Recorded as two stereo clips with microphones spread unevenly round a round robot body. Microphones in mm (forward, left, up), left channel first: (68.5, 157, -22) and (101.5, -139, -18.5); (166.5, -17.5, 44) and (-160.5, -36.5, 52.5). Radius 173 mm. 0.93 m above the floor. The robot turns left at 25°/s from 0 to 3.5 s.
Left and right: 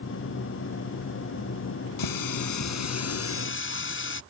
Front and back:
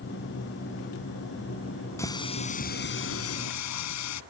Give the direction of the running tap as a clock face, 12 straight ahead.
9 o'clock.